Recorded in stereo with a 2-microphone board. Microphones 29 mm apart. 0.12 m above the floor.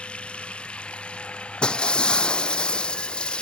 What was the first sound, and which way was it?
Running water, 40° left (ahead or behind).